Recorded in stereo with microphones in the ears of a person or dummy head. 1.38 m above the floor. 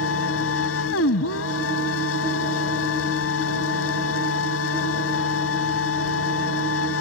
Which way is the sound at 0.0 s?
85° left.